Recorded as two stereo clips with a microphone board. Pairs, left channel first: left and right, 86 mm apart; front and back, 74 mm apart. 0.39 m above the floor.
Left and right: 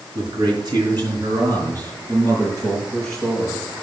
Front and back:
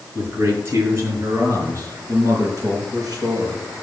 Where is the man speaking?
120° right, 5 m; by 3.6 s 145° right, 6 m.